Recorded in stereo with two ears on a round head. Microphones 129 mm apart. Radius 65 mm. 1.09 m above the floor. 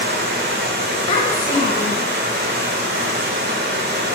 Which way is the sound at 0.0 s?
80° right.